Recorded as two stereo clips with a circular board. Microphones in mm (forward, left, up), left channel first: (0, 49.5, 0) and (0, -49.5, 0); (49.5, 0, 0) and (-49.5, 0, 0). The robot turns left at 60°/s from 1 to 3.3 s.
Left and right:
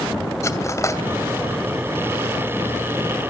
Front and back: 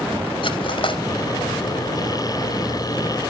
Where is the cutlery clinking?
30° left, 2 m.